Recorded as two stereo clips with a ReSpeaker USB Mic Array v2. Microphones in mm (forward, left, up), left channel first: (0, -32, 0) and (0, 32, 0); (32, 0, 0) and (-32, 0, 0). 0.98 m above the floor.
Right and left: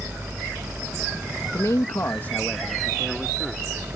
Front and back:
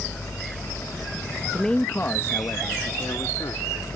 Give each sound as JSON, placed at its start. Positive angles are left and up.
{"t": 1.5, "sound": "a man speaking", "azimuth_deg": -85}